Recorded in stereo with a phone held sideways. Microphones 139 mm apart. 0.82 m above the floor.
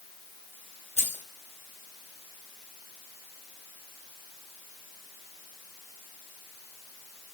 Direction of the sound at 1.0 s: 55° left (ahead or behind).